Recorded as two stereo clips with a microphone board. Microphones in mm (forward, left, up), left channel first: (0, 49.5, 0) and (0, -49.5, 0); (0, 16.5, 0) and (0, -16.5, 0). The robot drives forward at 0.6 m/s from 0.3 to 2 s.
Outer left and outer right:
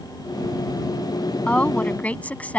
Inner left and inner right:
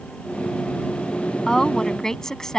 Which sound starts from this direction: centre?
A woman speaking, at 1.5 s.